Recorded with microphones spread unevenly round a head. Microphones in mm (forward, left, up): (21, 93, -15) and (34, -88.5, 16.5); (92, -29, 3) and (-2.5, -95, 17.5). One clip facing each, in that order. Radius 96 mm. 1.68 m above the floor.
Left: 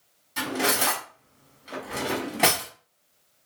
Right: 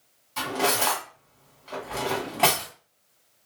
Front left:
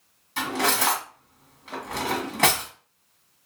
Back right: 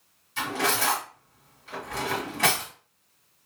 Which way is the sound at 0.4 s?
20° left.